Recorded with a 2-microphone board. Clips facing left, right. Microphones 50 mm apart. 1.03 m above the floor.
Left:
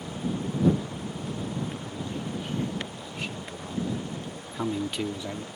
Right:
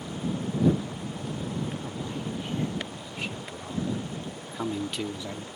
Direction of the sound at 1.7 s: 20° right (ahead or behind).